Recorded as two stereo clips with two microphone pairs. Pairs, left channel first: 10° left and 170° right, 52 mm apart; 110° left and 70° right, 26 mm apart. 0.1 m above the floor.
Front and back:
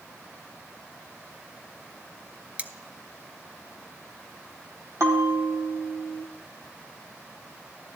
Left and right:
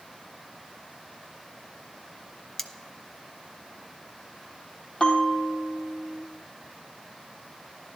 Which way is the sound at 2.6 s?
175° right.